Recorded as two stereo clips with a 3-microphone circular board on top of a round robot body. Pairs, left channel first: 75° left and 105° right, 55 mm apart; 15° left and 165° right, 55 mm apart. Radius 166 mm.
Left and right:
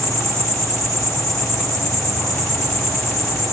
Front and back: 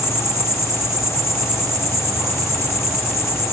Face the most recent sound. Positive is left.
turn(degrees=60)